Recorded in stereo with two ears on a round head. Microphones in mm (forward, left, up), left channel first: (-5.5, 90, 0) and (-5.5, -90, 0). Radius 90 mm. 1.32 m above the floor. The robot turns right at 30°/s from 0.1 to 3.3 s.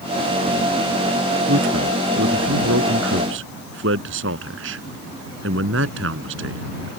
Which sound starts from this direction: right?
A man speaking, at 1.5 s.